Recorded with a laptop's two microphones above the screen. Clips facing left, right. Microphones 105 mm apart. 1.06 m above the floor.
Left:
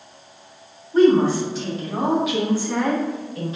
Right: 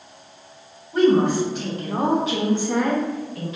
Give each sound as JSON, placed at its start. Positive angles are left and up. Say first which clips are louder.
{"t": 0.9, "sound": "a woman speaking", "louder": "left 2 dB", "side_deg": -60, "distance_m": 1.4}